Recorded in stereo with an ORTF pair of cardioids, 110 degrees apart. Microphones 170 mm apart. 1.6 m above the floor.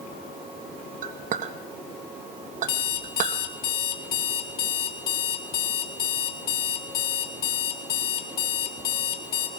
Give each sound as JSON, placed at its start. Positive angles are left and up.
{"t": 1.0, "sound": "a clink", "azimuth_deg": -50, "distance_m": 1.7}
{"t": 2.7, "sound": "an alarm clock", "azimuth_deg": 65, "distance_m": 2.0}